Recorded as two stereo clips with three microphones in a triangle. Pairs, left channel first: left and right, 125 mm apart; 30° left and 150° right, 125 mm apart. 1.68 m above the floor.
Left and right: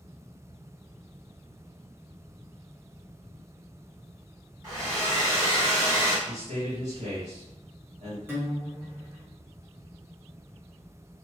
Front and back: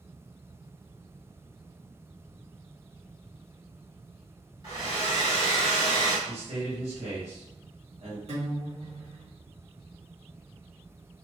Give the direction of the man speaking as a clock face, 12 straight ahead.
4 o'clock.